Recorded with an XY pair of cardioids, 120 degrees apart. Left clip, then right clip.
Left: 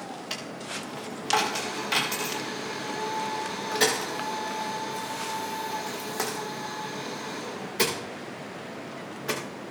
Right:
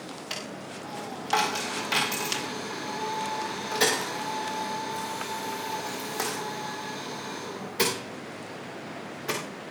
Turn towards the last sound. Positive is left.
turn(degrees=-5)